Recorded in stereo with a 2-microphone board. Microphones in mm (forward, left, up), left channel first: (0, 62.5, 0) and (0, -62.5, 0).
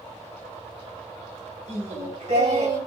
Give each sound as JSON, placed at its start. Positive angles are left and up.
{"t": 1.7, "sound": "singing", "side_deg": -70, "distance_m": 3.5}